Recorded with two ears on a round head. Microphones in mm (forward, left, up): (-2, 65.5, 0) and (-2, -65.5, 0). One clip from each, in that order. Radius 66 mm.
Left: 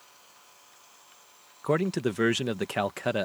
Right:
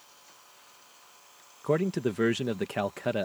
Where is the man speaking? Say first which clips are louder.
Left 1 dB; 25° left (ahead or behind).